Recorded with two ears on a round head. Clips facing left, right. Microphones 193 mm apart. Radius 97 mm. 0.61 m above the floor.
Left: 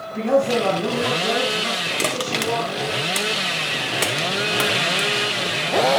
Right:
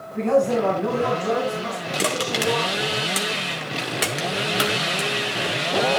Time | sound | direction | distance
0.1 | a man speaking | 25° left (ahead or behind) | 4.5 m
2.0 | crushing | 5° right (ahead or behind) | 1.9 m